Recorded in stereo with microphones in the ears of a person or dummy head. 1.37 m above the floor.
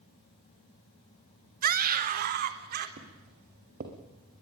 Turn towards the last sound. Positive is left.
turn(degrees=-45)  # may be behind; listen again after turning